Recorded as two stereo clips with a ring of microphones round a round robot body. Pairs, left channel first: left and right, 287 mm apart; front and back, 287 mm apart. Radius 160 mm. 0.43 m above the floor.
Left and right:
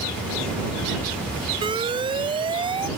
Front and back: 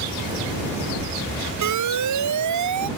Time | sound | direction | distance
1.6 | an alarm | 165° right | ?